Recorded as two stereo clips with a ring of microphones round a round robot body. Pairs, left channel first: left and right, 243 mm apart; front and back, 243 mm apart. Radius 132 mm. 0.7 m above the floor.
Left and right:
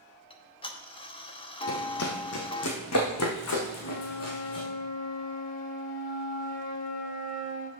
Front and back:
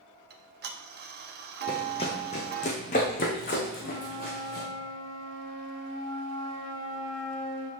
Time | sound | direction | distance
0.3 | ticking | 150° left | 1.0 m
1.7 | running footsteps | 70° left | 1.2 m
3.8 | a flute | 145° left | 2.0 m